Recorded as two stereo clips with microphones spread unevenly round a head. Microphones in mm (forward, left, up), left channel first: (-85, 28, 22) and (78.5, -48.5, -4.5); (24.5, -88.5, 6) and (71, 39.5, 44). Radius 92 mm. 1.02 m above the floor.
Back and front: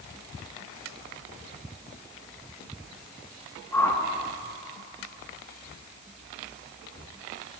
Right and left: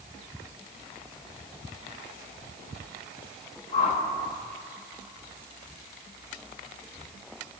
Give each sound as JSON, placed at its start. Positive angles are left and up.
{"t": 3.7, "sound": "a whoosh", "azimuth_deg": -125, "distance_m": 1.2}